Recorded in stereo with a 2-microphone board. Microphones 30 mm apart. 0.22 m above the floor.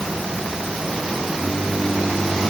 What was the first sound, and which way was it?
Only background noise.